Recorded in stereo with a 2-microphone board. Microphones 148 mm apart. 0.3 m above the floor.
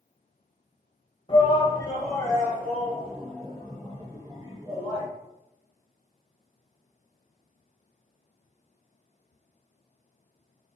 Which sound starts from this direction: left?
A shout, at 1.3 s.